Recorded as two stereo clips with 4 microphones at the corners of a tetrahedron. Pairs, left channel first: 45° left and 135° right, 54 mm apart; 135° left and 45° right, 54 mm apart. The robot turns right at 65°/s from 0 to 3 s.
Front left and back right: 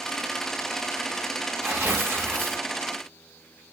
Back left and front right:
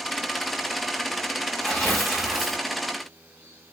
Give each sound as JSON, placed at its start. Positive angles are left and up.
{"t": 1.6, "sound": "tearing paper", "azimuth_deg": -160, "distance_m": 1.8}